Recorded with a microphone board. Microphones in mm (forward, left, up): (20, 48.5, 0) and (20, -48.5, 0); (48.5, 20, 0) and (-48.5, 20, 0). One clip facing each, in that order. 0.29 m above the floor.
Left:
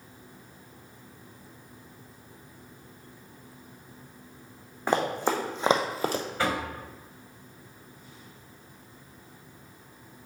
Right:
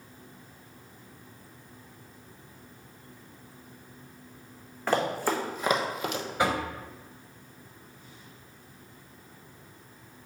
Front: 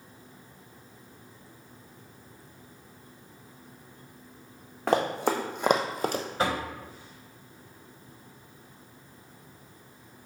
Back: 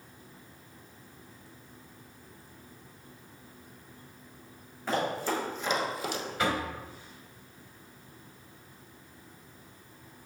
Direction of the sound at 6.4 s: 25° right.